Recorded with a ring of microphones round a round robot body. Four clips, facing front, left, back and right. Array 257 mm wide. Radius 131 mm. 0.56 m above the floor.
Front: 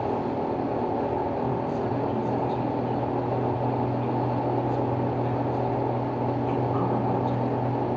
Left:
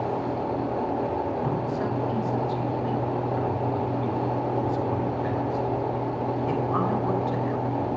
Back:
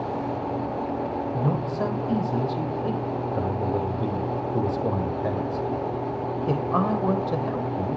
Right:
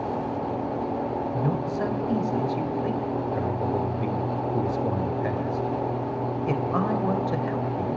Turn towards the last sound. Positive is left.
turn(degrees=-155)